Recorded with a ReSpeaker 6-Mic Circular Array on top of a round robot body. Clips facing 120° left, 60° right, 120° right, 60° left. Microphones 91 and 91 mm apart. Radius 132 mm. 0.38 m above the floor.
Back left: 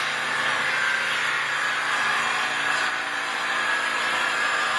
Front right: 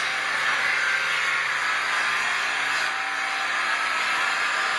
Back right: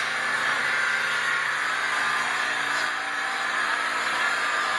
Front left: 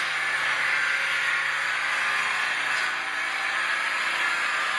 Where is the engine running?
175° left, 6.5 m.